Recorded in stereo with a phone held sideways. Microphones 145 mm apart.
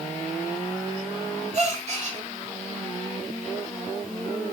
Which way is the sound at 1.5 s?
50° right (ahead or behind).